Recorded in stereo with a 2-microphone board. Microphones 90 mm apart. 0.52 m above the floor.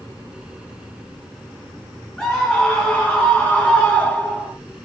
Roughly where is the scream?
Centre.